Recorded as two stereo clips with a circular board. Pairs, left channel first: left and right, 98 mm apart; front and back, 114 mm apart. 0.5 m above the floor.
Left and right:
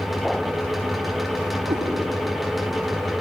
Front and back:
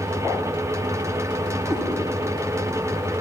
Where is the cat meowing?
100° right, 3.5 m.